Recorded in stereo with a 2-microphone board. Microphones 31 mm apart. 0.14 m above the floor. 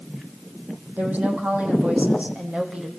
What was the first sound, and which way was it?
A woman speaking, 60° right (ahead or behind).